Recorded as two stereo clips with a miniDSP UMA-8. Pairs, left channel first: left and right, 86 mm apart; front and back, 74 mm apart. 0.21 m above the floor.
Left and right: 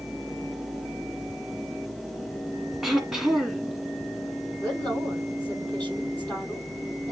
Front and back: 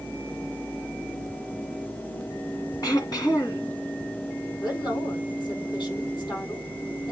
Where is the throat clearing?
5° right, 2.5 m.